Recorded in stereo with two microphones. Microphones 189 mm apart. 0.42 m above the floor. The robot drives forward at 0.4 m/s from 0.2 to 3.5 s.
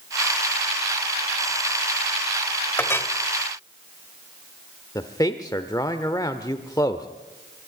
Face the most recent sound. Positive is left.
turn(degrees=20)  # may be behind; listen again after turning